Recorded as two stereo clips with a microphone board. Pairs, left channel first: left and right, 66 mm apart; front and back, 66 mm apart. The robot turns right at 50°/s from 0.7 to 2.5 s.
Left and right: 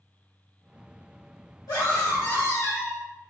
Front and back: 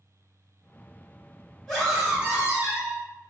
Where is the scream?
80° left, 1.6 m; by 3.0 s 120° left, 1.6 m.